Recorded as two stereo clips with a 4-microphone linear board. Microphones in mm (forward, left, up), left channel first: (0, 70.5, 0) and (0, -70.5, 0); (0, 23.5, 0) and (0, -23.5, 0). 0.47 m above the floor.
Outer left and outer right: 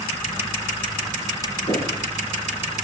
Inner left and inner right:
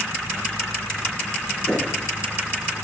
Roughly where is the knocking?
Left.